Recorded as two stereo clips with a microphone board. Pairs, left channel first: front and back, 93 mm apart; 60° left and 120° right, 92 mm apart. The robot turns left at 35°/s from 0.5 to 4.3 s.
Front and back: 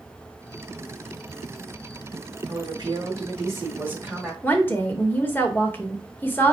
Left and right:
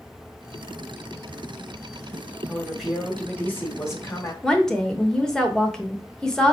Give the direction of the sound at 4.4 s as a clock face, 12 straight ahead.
12 o'clock.